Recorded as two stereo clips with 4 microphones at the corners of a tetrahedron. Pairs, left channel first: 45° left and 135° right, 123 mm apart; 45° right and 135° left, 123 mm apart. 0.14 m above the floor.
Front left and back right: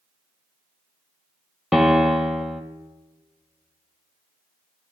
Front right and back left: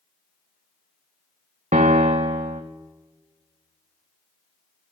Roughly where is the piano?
Behind left.